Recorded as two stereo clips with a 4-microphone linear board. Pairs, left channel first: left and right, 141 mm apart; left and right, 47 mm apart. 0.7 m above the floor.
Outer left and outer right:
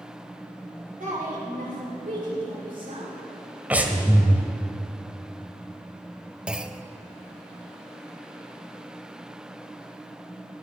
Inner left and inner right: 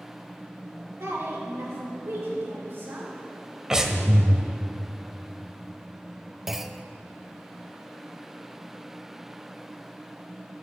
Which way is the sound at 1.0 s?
70° right (ahead or behind).